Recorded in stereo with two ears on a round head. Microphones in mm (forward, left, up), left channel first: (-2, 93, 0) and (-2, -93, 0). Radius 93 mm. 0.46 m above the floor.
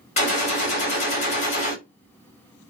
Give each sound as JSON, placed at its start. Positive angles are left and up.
{"t": 0.2, "sound": "a gunshot", "side_deg": 35, "distance_m": 1.6}